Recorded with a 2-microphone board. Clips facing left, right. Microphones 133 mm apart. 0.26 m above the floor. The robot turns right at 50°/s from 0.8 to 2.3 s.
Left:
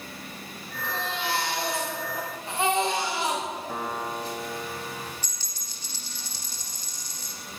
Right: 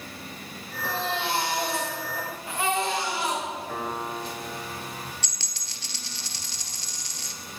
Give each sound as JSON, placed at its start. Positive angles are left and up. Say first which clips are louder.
{"t": 0.8, "sound": "a baby crying", "louder": "right 2 dB", "azimuth_deg": -50, "distance_m": 8.5}
{"t": 3.7, "sound": "a piano", "louder": "even", "side_deg": 10, "distance_m": 6.5}
{"t": 5.2, "sound": "a dropped coin", "louder": "right 1 dB", "side_deg": -80, "distance_m": 1.6}